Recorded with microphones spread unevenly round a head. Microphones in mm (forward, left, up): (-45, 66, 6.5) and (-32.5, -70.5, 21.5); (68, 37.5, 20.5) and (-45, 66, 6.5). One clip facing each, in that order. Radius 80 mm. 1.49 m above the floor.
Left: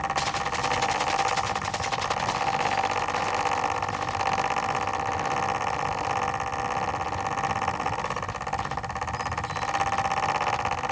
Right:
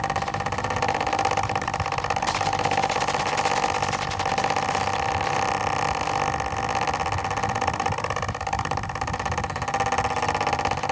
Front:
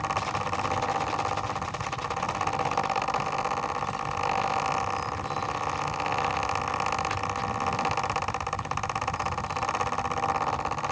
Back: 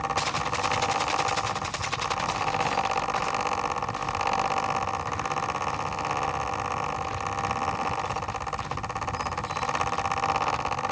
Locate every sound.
Only background noise.